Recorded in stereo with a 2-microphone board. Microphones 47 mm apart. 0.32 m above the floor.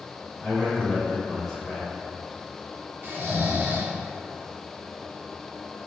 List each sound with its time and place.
0.4 s a man speaking: centre (ahead or behind), 1.4 m
3.0 s snoring: 50° right (ahead or behind), 0.6 m